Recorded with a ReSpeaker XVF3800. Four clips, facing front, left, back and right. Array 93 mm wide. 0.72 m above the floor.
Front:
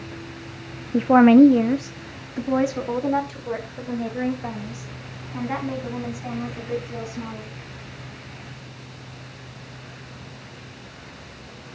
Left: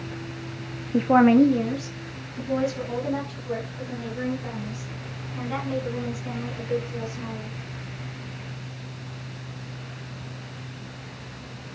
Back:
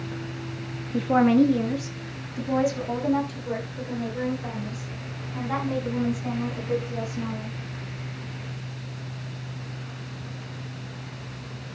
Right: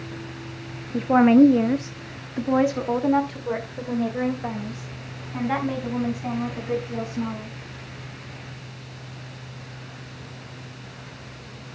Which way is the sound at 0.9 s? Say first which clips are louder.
Right 1 dB, front 7 dB; 35° left.